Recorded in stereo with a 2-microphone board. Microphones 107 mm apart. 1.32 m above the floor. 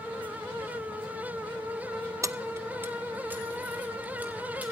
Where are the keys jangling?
30° right (ahead or behind), 0.5 m; by 4.6 s 15° right (ahead or behind), 3.5 m.